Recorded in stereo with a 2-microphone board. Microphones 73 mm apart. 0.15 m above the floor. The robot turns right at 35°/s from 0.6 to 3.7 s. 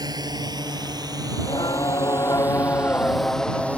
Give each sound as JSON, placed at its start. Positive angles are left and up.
{"t": 0.0, "sound": "a drone", "side_deg": -65}
{"t": 1.4, "sound": "singing", "azimuth_deg": 100}